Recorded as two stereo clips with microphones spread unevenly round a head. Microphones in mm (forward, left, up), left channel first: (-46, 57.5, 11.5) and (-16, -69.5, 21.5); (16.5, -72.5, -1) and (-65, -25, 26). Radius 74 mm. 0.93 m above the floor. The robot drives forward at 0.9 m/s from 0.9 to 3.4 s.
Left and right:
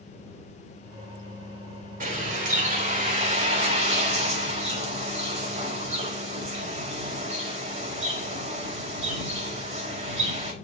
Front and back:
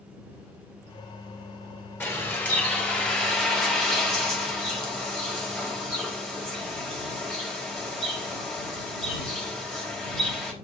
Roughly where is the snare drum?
No snare drum in this recording.